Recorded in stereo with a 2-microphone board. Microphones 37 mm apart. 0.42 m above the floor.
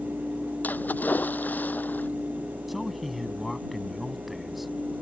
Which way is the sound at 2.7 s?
5° right (ahead or behind).